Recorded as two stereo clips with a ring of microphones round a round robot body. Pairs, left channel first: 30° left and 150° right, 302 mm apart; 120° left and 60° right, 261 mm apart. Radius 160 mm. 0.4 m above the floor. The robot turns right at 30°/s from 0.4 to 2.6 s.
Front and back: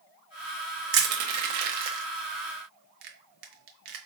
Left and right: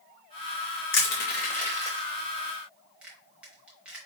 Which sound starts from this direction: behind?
Crushing, at 0.9 s.